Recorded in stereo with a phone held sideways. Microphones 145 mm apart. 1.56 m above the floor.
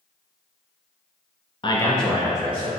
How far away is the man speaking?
About 0.5 m.